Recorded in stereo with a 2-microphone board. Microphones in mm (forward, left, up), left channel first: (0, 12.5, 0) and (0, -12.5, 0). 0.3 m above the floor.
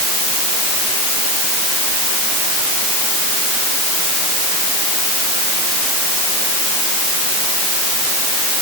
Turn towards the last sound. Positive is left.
No sound to turn to.